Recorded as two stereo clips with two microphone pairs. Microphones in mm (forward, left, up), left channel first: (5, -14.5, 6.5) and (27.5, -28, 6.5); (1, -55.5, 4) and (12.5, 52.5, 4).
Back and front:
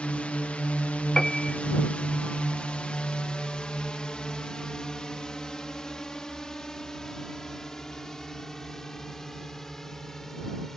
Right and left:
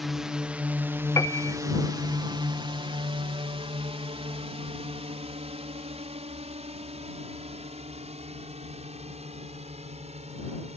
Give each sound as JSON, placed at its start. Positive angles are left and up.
{"t": 0.0, "sound": "a drone", "azimuth_deg": 170}
{"t": 1.2, "sound": "a piano", "azimuth_deg": -145}